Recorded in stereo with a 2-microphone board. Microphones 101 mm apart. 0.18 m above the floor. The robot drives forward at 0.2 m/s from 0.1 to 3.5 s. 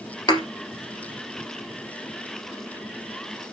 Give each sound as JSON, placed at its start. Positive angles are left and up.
{"t": 0.3, "sound": "a thud", "side_deg": 45, "distance_m": 2.0}